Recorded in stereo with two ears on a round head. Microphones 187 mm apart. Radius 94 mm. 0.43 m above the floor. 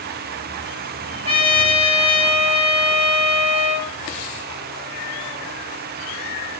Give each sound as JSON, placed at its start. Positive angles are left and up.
{"t": 1.2, "sound": "a trumpet", "side_deg": -30, "distance_m": 8.0}